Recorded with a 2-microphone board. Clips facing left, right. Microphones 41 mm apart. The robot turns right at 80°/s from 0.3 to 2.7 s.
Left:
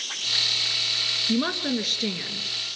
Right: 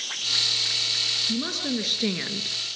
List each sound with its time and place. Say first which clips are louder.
1.3 s a woman speaking: left 3 dB; 135° left, 2 m; by 2.6 s 125° right, 2 m